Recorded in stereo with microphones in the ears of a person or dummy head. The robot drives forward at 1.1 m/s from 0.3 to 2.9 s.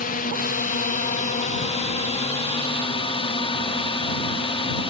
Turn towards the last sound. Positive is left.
turn(degrees=30)  # may be behind; listen again after turning